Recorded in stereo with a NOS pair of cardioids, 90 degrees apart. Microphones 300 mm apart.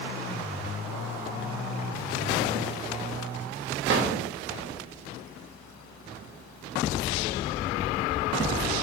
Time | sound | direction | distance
3.9 | a drawer | 40° right | 0.9 m